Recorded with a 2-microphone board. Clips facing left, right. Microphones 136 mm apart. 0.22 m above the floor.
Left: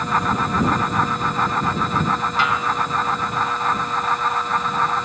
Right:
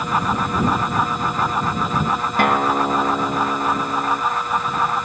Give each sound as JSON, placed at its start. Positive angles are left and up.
{"t": 2.4, "sound": "a guitar", "side_deg": -55}